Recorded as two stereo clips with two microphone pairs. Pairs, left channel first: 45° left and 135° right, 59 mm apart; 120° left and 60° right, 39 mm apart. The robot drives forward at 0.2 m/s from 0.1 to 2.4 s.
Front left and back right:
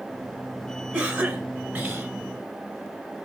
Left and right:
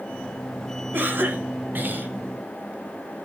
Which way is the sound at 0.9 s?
75° right.